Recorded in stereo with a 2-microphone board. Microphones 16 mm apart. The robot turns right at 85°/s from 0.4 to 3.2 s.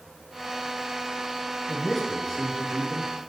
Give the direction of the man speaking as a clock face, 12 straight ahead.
1 o'clock.